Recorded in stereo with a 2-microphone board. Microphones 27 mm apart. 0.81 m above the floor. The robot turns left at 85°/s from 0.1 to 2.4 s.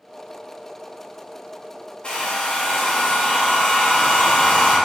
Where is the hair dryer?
140° left, 0.5 m; by 4.8 s 110° left, 0.5 m.